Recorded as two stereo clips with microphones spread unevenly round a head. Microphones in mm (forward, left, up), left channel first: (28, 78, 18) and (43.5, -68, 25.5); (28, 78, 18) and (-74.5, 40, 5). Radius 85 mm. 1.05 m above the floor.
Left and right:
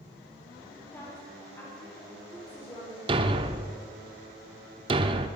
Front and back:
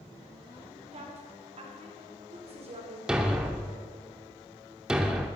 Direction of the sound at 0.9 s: 175° left.